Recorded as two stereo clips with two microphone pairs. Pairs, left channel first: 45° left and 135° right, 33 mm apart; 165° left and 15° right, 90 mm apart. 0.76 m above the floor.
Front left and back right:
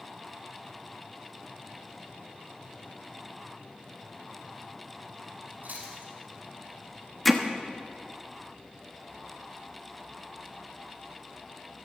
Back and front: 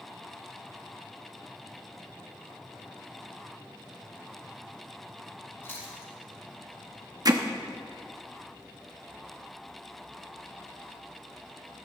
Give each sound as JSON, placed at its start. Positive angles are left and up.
{"t": 5.6, "sound": "chewing", "azimuth_deg": -135, "distance_m": 5.5}
{"t": 7.2, "sound": "hammering", "azimuth_deg": -40, "distance_m": 1.0}